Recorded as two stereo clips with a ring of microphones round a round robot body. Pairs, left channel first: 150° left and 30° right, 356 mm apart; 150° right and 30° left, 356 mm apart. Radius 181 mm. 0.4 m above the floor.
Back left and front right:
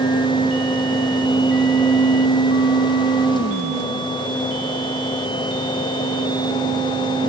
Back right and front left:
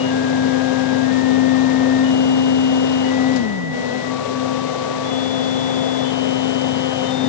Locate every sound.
Only background noise.